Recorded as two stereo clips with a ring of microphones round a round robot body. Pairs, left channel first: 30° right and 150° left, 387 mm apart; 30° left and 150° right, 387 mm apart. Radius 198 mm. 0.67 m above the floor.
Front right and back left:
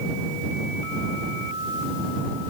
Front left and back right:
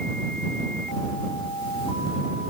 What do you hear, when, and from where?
Only background noise.